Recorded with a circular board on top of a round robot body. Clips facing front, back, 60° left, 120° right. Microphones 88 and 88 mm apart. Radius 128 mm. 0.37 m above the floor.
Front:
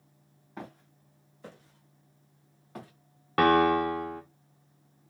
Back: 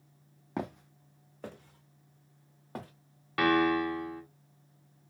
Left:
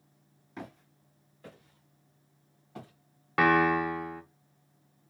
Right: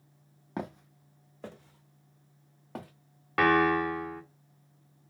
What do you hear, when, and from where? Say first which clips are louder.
0.6 s footsteps: back 7 dB, right 7 dB; 160° right, 0.8 m; by 2.9 s 130° right, 2 m
3.4 s a piano: front 4 dB, even; 25° right, 0.9 m